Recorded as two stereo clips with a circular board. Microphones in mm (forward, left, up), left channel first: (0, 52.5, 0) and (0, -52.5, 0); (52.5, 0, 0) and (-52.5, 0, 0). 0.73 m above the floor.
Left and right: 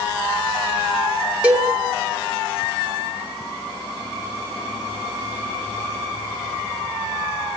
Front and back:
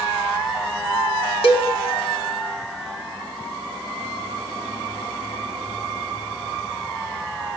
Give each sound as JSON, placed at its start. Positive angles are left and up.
{"t": 1.4, "sound": "a cowbell", "azimuth_deg": -10, "distance_m": 1.9}